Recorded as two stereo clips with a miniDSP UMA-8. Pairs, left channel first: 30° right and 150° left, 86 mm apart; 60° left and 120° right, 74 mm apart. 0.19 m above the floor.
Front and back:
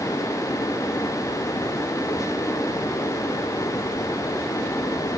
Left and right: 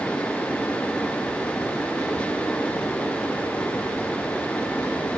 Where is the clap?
I don't hear a clap.